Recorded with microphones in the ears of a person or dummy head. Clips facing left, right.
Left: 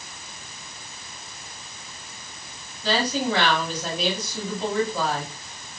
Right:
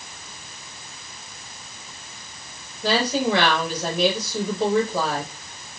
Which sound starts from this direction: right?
A woman speaking, at 2.8 s.